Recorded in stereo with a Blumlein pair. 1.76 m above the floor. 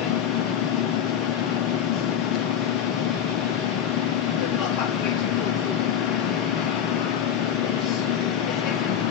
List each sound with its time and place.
0.0 s a machine running: 35° left, 0.7 m